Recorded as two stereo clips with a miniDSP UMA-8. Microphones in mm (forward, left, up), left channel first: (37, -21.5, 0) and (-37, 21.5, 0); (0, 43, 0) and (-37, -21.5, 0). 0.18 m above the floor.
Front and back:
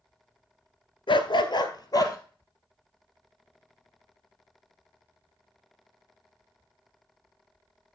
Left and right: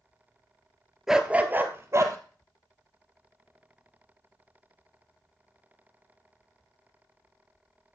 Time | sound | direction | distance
1.1 | a dog barking | 35° right | 0.7 m